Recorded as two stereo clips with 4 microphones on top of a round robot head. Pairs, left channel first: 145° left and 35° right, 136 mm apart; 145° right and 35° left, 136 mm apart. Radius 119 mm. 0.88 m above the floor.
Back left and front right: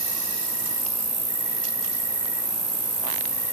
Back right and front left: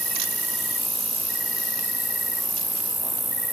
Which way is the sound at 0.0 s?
55° right.